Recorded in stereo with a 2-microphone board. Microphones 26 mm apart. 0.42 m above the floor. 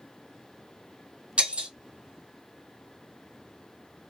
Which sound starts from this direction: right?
Breaking glass, at 1.4 s.